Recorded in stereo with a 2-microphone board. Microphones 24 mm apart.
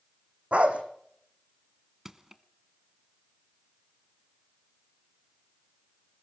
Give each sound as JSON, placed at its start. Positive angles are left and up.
{"t": 0.5, "sound": "a dog barking", "side_deg": -60, "distance_m": 3.5}
{"t": 2.0, "sound": "crushing", "side_deg": -20, "distance_m": 1.5}